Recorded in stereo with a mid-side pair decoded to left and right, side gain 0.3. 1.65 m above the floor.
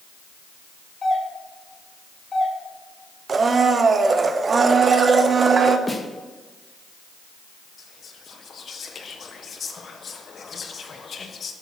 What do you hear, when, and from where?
1.0 s a doorbell: 45° left, 4.5 m
3.3 s a blender: 55° right, 1.0 m
5.9 s a snare drum: 25° left, 2.0 m
7.8 s whispering: 65° left, 1.5 m